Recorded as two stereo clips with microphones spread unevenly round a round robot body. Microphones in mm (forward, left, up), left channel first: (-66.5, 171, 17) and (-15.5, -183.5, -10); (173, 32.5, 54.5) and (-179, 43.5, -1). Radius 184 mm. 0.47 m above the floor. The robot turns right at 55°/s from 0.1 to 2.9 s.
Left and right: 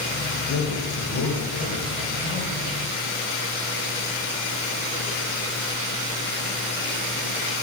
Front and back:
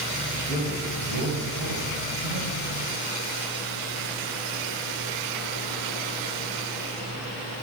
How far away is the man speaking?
About 2 m.